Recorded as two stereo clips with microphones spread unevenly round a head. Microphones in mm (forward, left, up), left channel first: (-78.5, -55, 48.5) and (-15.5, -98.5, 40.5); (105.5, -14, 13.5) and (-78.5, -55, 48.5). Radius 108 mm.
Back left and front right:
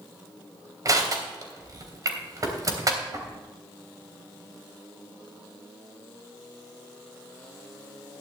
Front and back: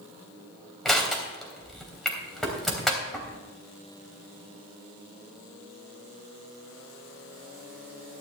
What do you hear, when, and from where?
0.8 s crushing: 80° right, 3 m